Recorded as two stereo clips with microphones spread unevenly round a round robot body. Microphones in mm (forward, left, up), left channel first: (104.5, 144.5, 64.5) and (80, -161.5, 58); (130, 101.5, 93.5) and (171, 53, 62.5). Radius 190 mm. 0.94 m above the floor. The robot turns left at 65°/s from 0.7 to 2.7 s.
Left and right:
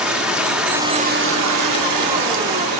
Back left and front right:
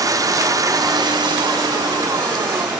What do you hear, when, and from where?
0.0 s running water: 5° right, 1.0 m; by 2.8 s 135° right, 1.0 m